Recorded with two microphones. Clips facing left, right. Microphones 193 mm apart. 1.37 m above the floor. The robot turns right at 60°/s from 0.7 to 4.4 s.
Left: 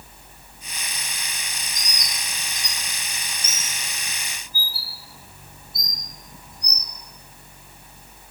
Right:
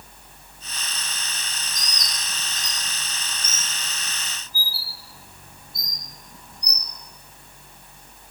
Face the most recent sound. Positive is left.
turn(degrees=45)  # may be behind; listen again after turning